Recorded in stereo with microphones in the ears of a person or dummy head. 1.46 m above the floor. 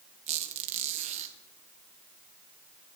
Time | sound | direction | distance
0.3 | a squeak | 35° right (ahead or behind) | 1.2 m